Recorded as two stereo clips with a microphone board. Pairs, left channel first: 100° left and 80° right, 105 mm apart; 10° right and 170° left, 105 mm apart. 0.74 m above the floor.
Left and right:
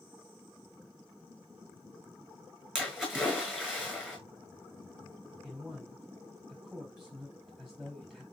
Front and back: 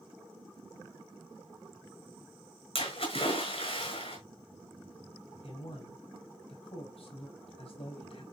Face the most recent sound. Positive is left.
turn(degrees=5)